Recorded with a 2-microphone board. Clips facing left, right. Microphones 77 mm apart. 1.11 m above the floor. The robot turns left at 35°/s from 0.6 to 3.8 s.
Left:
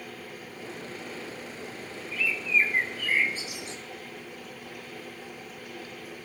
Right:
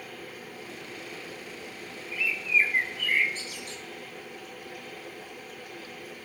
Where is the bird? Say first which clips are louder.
Even; 155° right, 0.8 m; by 3.8 s 145° left, 0.8 m.